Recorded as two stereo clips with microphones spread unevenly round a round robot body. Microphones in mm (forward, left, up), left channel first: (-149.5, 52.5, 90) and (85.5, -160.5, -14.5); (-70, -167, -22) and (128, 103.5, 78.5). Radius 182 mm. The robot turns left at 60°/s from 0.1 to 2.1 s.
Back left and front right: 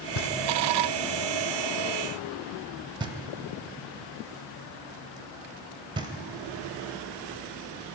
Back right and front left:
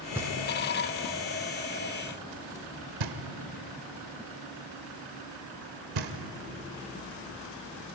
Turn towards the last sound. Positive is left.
turn(degrees=30)